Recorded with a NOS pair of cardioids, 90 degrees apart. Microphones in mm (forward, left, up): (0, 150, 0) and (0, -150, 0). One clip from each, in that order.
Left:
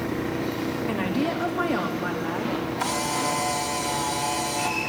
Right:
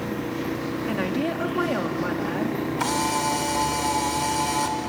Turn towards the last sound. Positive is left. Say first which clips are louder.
# right 3 dB
turn(degrees=-25)